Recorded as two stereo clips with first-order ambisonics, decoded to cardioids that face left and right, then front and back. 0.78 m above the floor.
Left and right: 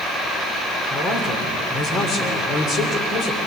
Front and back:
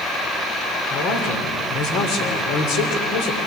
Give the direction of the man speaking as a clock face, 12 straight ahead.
11 o'clock.